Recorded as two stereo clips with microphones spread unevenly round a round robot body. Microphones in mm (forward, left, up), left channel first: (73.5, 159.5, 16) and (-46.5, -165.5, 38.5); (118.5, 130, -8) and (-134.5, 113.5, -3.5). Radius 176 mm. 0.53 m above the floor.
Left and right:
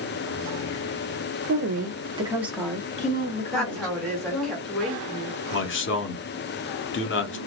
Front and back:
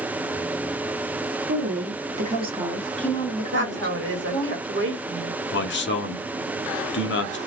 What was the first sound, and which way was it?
A woman speaking, 165° right.